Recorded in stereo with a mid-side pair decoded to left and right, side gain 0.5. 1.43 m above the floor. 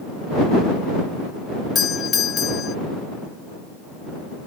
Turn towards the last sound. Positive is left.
turn(degrees=45)